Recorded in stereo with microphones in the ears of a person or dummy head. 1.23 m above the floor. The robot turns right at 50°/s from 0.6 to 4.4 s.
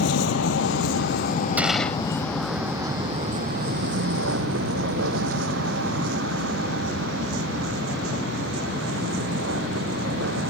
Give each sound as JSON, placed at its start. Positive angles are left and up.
{"t": 0.0, "sound": "a vehicle", "side_deg": 90}
{"t": 1.6, "sound": "a gunshot", "side_deg": -10}